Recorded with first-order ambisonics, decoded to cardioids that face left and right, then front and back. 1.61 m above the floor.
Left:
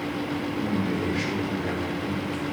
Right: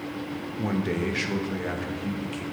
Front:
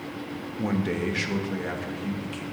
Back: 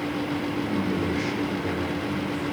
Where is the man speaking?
35° right, 1.0 m; by 2.4 s 50° right, 2.0 m.